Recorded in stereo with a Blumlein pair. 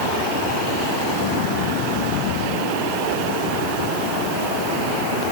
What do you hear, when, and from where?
Only background noise.